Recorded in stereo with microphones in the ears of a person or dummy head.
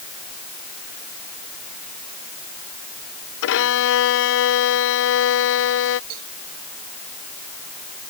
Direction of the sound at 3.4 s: 65° left (ahead or behind).